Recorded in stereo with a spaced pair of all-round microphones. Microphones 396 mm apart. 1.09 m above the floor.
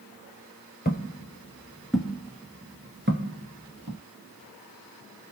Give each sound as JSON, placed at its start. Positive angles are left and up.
{"t": 0.8, "sound": "footsteps", "side_deg": 25, "distance_m": 1.4}